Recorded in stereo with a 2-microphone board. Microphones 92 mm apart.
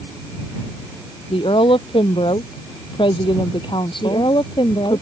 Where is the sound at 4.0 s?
60° left (ahead or behind).